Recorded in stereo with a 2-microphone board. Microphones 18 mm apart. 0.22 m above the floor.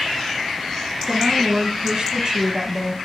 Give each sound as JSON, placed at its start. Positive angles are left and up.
{"t": 1.1, "sound": "a woman speaking", "side_deg": -55, "distance_m": 3.5}